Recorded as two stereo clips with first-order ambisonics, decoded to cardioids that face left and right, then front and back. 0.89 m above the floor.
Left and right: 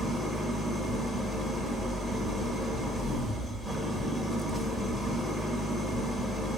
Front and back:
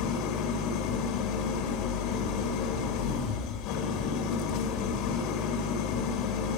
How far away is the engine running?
About 1.4 m.